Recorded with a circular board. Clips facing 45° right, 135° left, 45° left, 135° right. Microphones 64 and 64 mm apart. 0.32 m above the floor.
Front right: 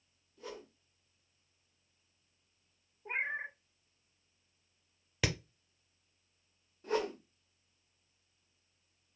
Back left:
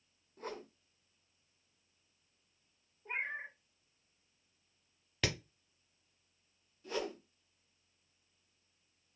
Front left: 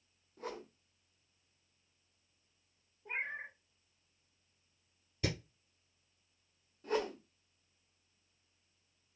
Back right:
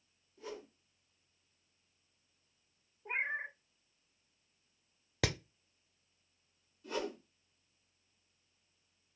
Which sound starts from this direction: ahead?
A whoosh, at 6.8 s.